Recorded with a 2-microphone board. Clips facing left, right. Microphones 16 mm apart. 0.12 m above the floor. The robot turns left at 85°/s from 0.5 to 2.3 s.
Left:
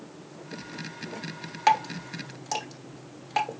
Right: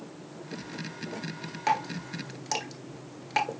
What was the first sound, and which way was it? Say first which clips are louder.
Dripping: left 5 dB; 25° left (ahead or behind).